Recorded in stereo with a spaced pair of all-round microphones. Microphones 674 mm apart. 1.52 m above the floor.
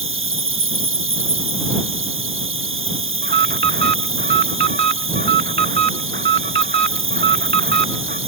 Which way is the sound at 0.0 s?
20° right (ahead or behind).